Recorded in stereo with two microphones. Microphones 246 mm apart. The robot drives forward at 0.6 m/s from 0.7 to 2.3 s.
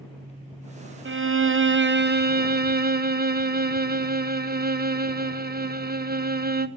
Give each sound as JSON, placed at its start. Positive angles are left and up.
{"t": 1.1, "sound": "a violin", "side_deg": -50, "distance_m": 0.7}